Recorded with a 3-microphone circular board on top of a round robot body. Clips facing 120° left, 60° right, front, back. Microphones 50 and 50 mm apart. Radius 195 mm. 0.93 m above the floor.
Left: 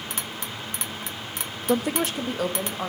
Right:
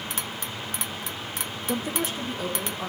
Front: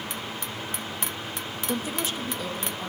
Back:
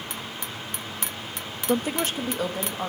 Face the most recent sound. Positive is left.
turn(degrees=140)